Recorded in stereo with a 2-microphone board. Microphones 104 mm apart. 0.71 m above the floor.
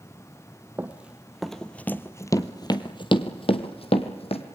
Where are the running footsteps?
20° right (ahead or behind), 1.4 m; by 4.4 s 70° left (ahead or behind), 2 m.